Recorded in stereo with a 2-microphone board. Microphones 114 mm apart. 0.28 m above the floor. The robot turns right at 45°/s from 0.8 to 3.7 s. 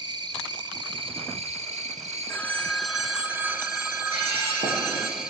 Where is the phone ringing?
150° left, 0.9 m; by 5.1 s 145° right, 0.9 m.